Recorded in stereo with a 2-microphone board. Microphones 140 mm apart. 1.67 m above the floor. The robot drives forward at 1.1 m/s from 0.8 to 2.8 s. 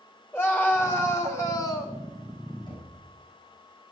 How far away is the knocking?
About 8 m.